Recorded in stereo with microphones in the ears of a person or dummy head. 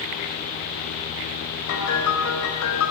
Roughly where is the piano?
Left.